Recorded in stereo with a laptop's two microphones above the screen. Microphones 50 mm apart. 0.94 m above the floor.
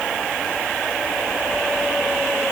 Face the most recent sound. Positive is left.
No sound to turn to.